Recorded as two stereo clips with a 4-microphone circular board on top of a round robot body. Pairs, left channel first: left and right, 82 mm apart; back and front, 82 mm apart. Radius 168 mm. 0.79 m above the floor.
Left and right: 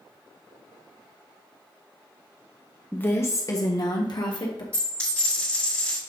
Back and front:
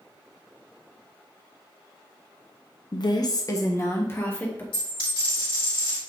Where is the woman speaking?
160° left, 0.8 m; by 4.6 s 110° left, 1.6 m.